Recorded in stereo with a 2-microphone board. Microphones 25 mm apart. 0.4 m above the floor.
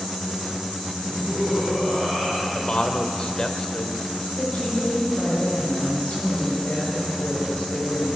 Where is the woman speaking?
60° left (ahead or behind), 7.5 m.